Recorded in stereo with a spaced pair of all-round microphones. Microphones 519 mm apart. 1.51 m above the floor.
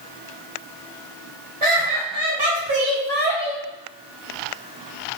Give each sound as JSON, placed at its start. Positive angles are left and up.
{"t": 1.6, "sound": "laughter", "side_deg": -65, "distance_m": 1.1}